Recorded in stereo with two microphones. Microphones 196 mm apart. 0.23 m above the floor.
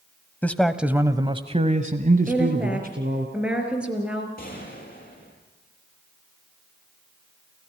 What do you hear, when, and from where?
0.4 s a man speaking: 10° left (ahead or behind), 1.1 m; by 3.3 s 50° right (ahead or behind), 2.5 m
2.3 s a woman speaking: 5° right (ahead or behind), 4.5 m
4.4 s a gunshot: 45° left (ahead or behind), 7 m